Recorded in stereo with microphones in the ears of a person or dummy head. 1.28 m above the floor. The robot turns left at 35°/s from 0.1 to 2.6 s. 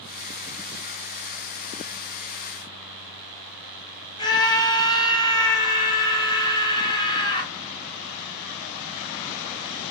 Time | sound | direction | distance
4.2 | a scream | 20° left (ahead or behind) | 0.6 m